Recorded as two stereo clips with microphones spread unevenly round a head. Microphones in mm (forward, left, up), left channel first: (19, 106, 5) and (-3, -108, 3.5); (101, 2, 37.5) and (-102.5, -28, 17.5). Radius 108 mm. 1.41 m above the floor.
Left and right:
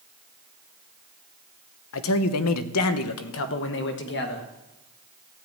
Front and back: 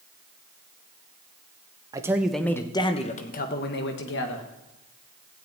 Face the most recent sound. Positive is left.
turn(degrees=40)